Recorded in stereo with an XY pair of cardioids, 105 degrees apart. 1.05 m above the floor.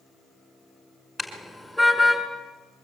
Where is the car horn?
Straight ahead, 5 m; by 2.2 s 5° right, 6 m.